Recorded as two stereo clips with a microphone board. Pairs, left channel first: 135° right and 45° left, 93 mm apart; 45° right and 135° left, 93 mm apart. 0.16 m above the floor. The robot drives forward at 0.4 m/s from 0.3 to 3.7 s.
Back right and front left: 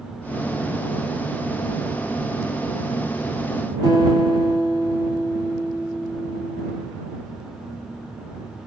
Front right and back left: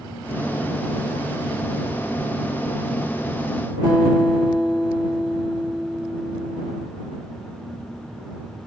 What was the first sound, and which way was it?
A guitar, 155° right.